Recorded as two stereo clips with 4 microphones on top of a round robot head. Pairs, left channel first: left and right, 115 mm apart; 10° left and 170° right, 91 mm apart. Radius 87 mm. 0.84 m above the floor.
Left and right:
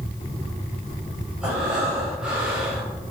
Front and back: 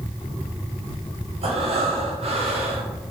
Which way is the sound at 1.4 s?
175° right.